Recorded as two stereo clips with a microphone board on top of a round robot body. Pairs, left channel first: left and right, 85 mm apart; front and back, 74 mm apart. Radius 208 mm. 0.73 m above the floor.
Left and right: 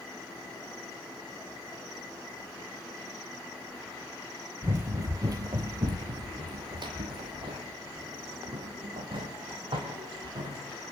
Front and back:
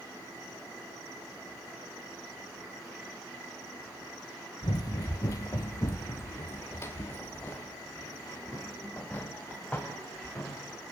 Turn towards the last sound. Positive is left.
turn(degrees=-75)